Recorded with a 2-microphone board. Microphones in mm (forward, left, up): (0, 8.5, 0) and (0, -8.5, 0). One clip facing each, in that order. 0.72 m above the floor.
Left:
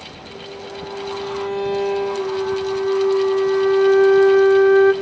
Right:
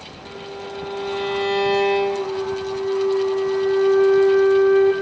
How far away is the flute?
About 1.7 m.